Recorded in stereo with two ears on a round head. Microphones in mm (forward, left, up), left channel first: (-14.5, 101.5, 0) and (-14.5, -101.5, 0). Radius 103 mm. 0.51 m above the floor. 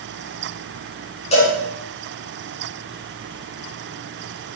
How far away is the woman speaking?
No woman speaking in this recording.